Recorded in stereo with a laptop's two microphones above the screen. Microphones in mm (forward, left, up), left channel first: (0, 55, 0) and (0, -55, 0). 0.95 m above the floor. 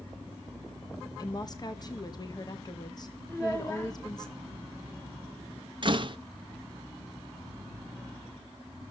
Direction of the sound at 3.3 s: 20° left (ahead or behind).